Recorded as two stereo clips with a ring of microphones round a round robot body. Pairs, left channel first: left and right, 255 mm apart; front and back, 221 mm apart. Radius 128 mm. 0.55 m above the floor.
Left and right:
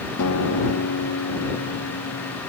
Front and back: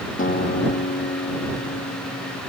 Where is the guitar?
55° left.